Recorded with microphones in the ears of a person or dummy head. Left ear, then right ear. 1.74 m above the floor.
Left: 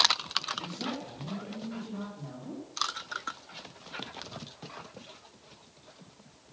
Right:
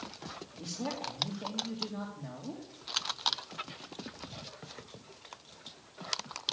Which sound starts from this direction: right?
A man speaking, at 0.6 s.